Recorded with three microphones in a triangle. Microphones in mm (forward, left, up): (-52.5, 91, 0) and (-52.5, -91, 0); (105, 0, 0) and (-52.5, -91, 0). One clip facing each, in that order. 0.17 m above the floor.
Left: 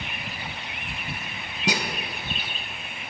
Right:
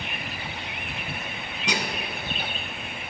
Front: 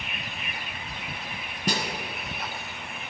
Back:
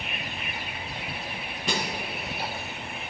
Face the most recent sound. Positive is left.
turn(degrees=55)